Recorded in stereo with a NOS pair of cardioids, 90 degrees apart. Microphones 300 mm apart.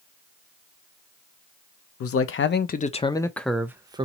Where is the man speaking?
55° left, 0.9 m; by 4.0 s 15° right, 1.0 m.